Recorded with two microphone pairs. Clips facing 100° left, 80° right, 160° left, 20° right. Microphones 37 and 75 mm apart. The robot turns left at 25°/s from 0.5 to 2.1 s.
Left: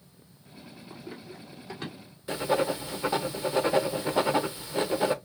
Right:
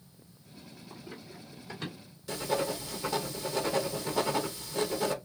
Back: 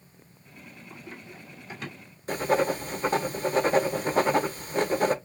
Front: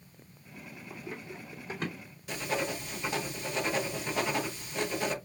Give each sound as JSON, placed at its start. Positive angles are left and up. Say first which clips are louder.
{"t": 0.9, "sound": "running footsteps", "louder": "left 4 dB, front 2 dB", "azimuth_deg": 55, "distance_m": 2.5}
{"t": 2.3, "sound": "writing", "louder": "left 5 dB, back 9 dB", "azimuth_deg": 150, "distance_m": 0.6}